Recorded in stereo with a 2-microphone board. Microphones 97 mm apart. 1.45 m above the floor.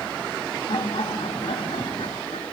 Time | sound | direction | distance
0.7 | laughter | 65° left (ahead or behind) | 3.5 m